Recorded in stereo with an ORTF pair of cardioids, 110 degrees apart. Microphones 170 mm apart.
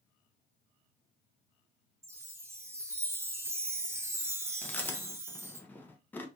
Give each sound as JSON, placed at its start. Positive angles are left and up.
{"t": 2.0, "sound": "a chime", "azimuth_deg": -15, "distance_m": 0.8}
{"t": 4.6, "sound": "chewing", "azimuth_deg": 10, "distance_m": 0.8}